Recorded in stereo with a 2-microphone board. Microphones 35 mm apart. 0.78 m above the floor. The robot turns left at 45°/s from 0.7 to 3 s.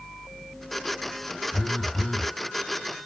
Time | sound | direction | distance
1.5 | a phone buzzing | 170° left | 0.9 m